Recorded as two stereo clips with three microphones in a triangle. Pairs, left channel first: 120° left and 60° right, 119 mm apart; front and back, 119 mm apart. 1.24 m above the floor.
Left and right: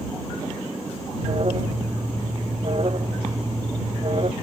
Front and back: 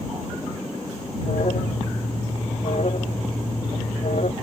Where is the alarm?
20° right.